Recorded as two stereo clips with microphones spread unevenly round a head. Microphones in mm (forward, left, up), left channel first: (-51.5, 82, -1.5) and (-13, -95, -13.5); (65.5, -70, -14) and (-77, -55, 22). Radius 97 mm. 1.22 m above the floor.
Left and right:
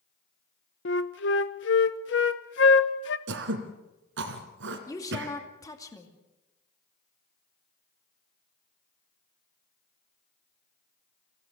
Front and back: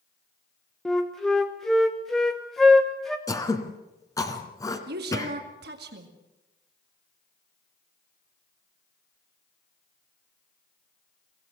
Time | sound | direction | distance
0.8 | a flute | 75° left | 0.9 m
3.3 | throat clearing | 80° right | 2.5 m
4.9 | a woman speaking | 175° left | 2 m